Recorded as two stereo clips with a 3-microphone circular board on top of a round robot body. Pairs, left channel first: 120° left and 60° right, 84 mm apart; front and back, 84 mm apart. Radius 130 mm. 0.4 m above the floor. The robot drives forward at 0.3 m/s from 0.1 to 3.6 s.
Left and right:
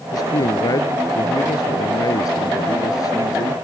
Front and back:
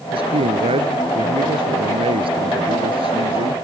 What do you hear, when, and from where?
0.1 s a man speaking: 165° left